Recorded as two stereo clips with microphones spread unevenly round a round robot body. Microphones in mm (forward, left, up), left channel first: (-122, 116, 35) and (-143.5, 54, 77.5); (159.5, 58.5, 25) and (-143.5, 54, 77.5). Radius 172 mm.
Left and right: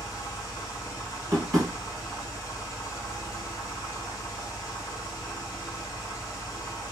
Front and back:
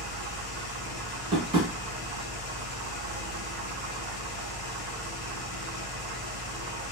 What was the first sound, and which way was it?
An engine running, 40° left.